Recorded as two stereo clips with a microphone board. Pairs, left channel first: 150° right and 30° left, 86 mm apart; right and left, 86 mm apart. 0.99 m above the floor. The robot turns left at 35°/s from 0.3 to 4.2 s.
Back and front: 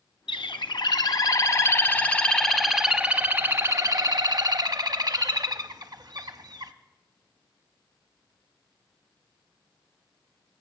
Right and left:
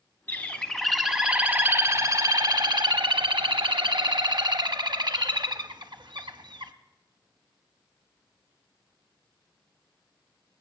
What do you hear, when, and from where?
0.3 s a bird: 155° right, 0.7 m; by 6.7 s 70° left, 0.7 m